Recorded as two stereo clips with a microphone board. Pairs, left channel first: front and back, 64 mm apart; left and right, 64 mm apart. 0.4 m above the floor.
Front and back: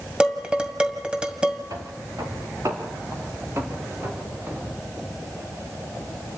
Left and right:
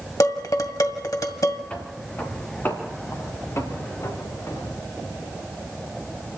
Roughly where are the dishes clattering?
Left.